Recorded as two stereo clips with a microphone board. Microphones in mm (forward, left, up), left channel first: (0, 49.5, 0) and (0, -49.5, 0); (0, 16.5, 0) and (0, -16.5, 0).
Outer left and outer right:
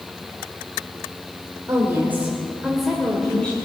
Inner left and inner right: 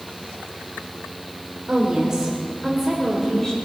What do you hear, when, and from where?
1.7 s a woman speaking: 30° right (ahead or behind), 2 m; by 3.5 s 15° left (ahead or behind), 2.5 m